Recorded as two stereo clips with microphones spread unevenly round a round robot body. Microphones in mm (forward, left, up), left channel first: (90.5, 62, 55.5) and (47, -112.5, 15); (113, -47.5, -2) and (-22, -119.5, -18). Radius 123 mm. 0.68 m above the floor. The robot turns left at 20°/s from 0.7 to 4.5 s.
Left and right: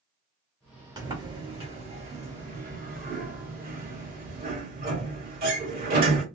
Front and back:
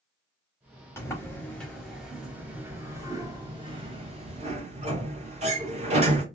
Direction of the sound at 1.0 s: 45° right.